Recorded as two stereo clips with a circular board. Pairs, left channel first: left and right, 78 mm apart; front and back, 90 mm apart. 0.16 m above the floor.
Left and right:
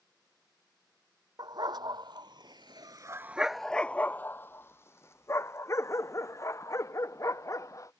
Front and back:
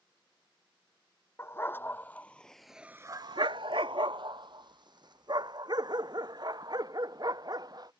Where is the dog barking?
65° right; by 7.9 s 140° left.